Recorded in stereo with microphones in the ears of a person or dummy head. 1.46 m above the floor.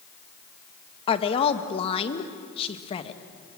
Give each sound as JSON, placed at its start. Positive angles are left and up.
{"t": 1.1, "sound": "a woman speaking", "side_deg": 35, "distance_m": 1.7}